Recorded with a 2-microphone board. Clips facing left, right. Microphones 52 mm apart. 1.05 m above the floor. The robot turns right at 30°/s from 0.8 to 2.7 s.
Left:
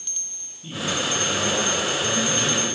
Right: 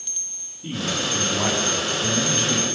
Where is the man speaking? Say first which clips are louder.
Even; 155° right, 6 m; by 2.7 s 100° right, 6 m.